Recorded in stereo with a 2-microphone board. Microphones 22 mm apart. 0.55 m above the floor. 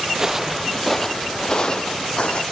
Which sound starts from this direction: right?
Footsteps, at 0.1 s.